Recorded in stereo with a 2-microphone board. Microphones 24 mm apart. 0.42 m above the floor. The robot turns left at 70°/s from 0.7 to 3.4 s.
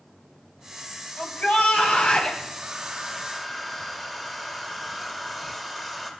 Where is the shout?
125° left, 3 m; by 2.4 s 40° left, 3 m.